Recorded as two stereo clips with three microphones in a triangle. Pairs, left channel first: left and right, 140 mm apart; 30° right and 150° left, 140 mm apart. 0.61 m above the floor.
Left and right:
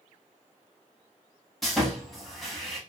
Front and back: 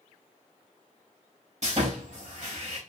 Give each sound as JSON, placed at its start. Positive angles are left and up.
{"t": 1.6, "sound": "sawing", "azimuth_deg": 180, "distance_m": 0.8}